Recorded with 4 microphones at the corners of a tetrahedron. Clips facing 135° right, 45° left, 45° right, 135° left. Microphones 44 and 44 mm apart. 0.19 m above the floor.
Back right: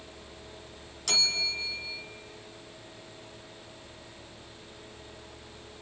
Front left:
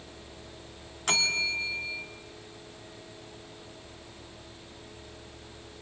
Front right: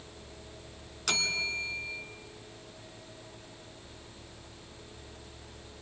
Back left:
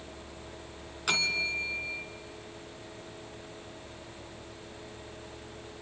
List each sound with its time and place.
1.1 s a bell: 65° left, 1.5 m